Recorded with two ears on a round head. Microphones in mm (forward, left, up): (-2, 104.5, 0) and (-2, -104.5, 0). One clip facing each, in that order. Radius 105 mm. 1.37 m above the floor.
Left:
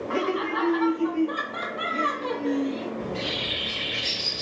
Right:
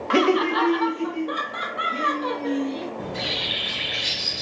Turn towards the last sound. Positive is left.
turn(degrees=-45)  # may be behind; listen again after turning